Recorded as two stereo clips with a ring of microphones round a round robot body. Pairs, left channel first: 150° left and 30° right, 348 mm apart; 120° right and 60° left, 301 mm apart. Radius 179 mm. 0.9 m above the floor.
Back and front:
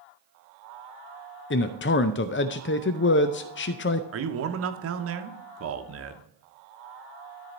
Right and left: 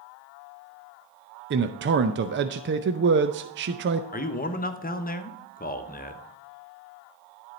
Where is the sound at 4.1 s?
65° right, 1.1 m.